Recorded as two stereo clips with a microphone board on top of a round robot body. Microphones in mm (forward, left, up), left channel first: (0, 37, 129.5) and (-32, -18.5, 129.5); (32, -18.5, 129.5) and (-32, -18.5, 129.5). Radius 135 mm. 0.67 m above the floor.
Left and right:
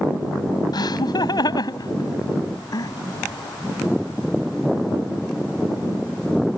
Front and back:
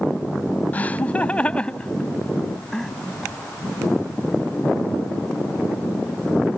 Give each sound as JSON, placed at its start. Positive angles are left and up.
{"t": 0.7, "sound": "laughter", "azimuth_deg": 65}